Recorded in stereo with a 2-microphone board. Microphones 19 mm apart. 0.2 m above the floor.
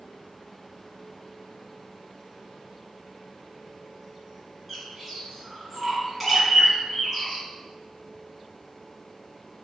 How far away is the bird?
About 3.5 m.